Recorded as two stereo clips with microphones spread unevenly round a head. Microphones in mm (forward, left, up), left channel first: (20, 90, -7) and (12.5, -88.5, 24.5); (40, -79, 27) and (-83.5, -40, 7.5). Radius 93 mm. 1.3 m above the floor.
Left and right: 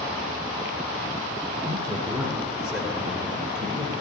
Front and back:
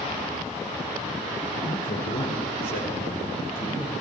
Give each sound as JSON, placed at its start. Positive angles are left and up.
{"t": 1.6, "sound": "a man speaking", "azimuth_deg": -20, "distance_m": 2.5}